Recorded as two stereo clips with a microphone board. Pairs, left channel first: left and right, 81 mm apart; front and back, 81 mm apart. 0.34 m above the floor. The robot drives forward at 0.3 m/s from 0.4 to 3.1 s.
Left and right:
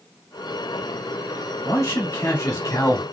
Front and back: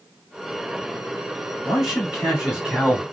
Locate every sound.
1.6 s a man speaking: 95° left, 1.7 m; by 3.0 s 110° left, 1.8 m